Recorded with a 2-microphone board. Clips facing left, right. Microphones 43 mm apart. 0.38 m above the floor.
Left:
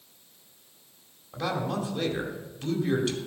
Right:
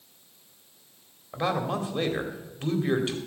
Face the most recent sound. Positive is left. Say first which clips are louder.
# right 2 dB
turn(degrees=-25)  # may be behind; listen again after turning